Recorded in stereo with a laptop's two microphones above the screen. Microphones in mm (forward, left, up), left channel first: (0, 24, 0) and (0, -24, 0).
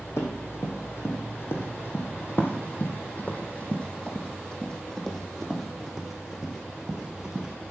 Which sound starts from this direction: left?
Running footsteps, at 0.2 s.